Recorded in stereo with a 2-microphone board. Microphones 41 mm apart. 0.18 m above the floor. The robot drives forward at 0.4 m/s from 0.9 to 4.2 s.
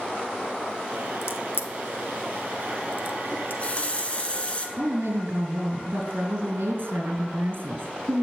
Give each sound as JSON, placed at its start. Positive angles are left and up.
{"t": 1.2, "sound": "a crack", "side_deg": 70, "distance_m": 1.2}
{"t": 3.3, "sound": "a running tap", "side_deg": 40, "distance_m": 1.3}
{"t": 4.8, "sound": "a woman speaking", "side_deg": -65, "distance_m": 3.5}